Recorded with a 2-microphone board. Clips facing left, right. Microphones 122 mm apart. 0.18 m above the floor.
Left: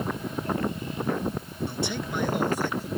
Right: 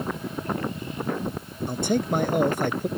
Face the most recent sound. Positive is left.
turn(degrees=-60)  # may be behind; listen again after turning